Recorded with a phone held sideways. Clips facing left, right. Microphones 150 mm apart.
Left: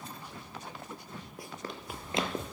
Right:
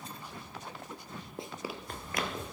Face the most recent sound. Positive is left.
turn(degrees=35)  # may be behind; listen again after turning